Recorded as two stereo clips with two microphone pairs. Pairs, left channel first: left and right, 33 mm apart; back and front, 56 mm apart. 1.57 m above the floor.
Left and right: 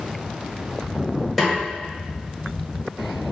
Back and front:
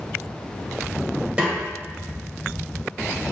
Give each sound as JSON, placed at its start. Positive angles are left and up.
{"t": 1.4, "sound": "a snare drum", "azimuth_deg": 0, "distance_m": 1.4}